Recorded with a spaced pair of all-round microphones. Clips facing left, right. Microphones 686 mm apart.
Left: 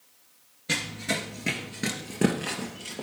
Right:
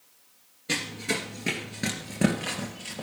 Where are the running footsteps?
20° left (ahead or behind), 1.7 m; by 3.0 s 30° right (ahead or behind), 2 m.